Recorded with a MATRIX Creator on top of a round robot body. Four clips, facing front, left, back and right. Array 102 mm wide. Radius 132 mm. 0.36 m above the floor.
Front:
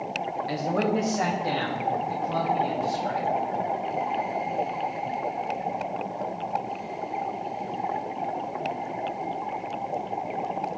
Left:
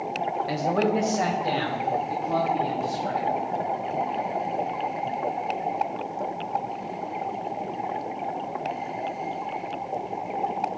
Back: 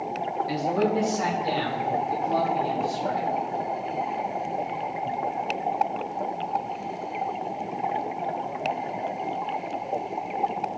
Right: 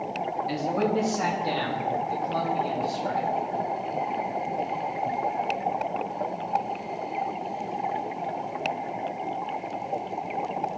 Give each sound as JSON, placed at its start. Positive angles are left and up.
{"t": 0.5, "sound": "a man speaking", "azimuth_deg": 65, "distance_m": 1.9}